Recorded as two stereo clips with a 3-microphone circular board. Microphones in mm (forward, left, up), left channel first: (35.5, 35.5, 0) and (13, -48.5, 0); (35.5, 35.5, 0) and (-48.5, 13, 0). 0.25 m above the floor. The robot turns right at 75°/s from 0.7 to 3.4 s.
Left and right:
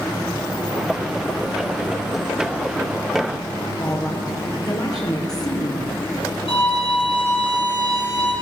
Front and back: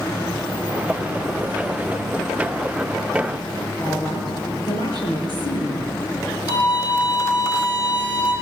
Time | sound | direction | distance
3.8 | a woman speaking | 30° left | 5 m
6.5 | a violin | 55° left | 8 m